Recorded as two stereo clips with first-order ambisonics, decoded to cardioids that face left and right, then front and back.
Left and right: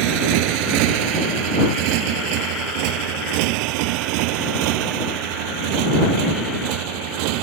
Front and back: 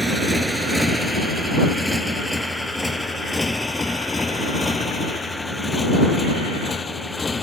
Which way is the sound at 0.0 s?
95° right.